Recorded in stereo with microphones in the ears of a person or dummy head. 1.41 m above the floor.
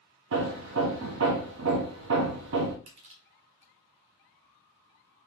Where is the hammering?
65° right (ahead or behind), 0.9 m.